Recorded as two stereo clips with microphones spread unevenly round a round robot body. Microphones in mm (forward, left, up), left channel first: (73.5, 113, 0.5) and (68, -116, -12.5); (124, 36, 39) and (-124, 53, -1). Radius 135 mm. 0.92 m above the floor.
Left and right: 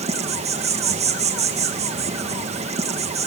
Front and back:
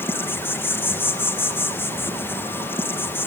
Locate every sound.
0.0 s an insect: 95° right, 1.0 m